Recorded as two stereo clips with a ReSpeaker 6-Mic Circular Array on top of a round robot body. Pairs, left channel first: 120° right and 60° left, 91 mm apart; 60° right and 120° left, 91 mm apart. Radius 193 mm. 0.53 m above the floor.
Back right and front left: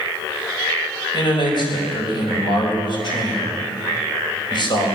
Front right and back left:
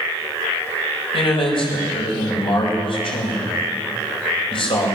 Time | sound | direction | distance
1.1 | a man speaking | 85° right | 4.5 m